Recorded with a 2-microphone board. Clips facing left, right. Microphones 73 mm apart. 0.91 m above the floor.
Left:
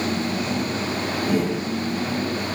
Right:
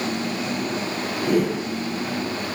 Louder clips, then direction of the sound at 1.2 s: Right 3 dB; 55° right (ahead or behind).